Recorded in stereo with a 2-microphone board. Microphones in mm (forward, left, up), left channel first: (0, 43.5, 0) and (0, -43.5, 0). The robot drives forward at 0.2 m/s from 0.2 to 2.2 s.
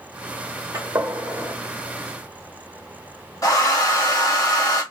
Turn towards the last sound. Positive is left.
turn(degrees=40)  # may be behind; listen again after turning